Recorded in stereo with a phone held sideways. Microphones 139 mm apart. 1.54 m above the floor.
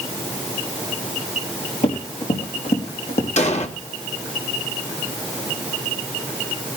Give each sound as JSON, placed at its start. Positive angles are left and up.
{"t": 1.8, "sound": "running footsteps", "side_deg": 60, "distance_m": 5.0}
{"t": 3.4, "sound": "an explosion", "side_deg": 60, "distance_m": 1.6}